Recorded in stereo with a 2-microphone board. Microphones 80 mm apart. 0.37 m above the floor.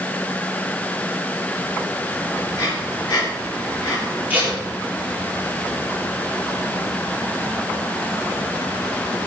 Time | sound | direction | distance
2.5 | breathing | 50° left (ahead or behind) | 4.5 m
4.3 | tape being pulled | 20° right (ahead or behind) | 6.5 m